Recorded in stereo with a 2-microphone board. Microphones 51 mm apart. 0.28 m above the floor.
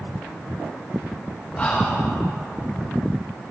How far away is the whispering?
About 2.5 m.